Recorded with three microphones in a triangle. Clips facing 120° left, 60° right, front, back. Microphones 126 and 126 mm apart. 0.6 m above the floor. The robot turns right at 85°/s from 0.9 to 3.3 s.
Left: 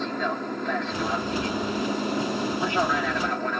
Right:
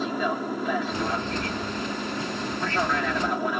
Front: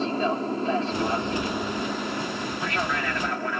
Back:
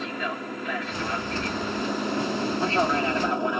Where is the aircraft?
20° left; by 3.6 s 135° right.